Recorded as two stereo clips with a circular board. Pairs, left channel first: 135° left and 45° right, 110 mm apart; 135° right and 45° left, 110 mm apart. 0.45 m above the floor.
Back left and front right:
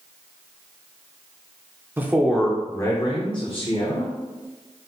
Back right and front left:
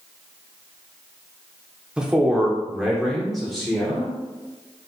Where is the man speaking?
20° right, 0.8 m; by 4.1 s 135° left, 1.4 m.